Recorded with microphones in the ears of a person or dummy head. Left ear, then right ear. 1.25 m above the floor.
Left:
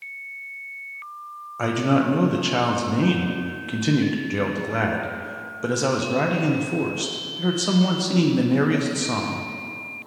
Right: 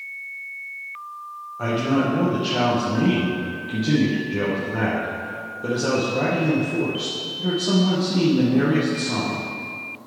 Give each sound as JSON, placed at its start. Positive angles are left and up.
{"t": 1.6, "sound": "a man speaking", "side_deg": 60, "distance_m": 0.7}